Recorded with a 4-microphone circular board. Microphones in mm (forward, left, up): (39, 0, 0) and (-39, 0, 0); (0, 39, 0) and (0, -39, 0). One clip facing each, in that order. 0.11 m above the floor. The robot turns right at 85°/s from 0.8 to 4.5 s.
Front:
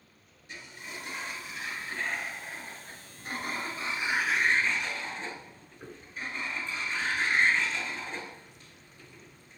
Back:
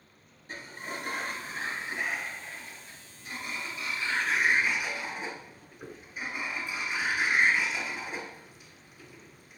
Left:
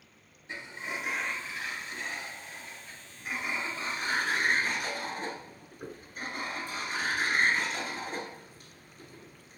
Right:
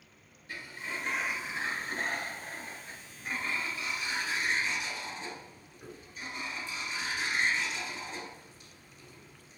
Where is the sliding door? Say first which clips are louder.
Back 5 dB, left 2 dB; 150° left, 0.8 m; by 9.6 s 105° left, 0.8 m.